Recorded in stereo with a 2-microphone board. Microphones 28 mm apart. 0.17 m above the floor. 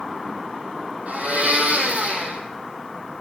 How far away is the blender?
About 2.5 m.